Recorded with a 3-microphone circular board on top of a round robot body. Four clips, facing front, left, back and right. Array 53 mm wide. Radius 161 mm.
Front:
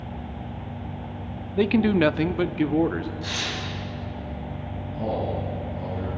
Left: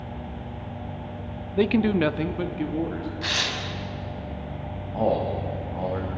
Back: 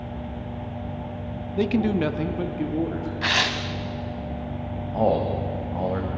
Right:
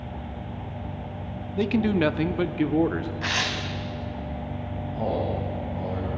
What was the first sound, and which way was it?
A man speaking, 55° left.